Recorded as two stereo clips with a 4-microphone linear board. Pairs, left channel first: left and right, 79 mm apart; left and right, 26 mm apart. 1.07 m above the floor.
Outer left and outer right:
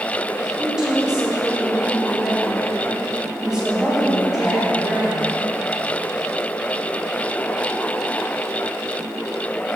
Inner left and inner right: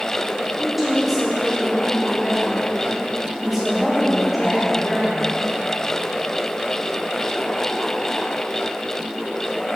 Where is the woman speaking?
10° right (ahead or behind), 2.5 m.